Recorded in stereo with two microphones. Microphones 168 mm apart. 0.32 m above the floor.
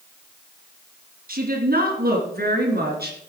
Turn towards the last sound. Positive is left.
turn(degrees=-65)  # may be behind; listen again after turning